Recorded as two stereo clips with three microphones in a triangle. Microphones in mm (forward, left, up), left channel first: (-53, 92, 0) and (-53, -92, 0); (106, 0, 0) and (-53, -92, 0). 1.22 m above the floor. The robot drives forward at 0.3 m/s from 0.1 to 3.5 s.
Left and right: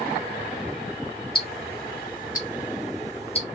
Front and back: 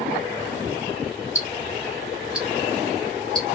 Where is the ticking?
100° left, 0.6 m; by 3.4 s 145° left, 0.9 m.